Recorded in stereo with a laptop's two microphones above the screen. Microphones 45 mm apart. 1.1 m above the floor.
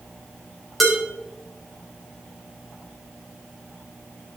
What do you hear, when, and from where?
0.8 s dishes clattering: centre (ahead or behind), 4 m